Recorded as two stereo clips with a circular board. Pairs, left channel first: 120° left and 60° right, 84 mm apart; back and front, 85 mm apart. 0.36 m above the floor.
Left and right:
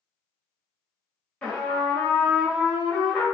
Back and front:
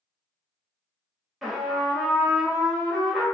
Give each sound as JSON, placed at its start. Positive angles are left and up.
{"t": 1.4, "sound": "a trumpet", "azimuth_deg": 85, "distance_m": 1.1}